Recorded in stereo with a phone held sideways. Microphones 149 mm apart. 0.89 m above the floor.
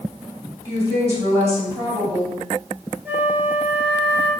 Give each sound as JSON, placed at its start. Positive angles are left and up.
{"t": 0.7, "sound": "a woman speaking", "side_deg": -20, "distance_m": 2.5}
{"t": 3.0, "sound": "a flute", "side_deg": -10, "distance_m": 1.1}